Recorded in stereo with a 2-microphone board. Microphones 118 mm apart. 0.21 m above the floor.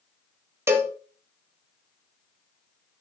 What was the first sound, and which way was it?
A cowbell, 20° right (ahead or behind).